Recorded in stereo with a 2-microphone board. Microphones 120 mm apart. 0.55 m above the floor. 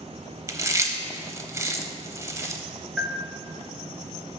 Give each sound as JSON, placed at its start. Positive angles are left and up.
{"t": 0.5, "sound": "chewing", "side_deg": -25, "distance_m": 0.8}
{"t": 3.0, "sound": "a bell", "side_deg": 0, "distance_m": 1.0}